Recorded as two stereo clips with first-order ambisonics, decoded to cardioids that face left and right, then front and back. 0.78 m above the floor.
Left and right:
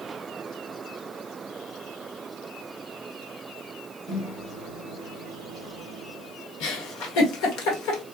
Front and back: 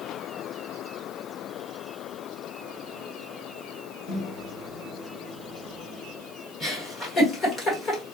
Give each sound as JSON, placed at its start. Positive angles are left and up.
{"t": 4.1, "sound": "a microwave", "azimuth_deg": 40, "distance_m": 2.5}
{"t": 6.6, "sound": "a giggle", "azimuth_deg": 70, "distance_m": 1.3}